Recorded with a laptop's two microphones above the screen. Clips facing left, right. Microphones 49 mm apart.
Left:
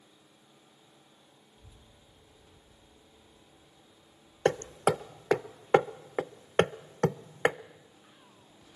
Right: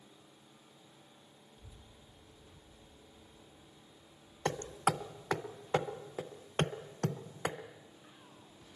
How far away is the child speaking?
About 1.7 m.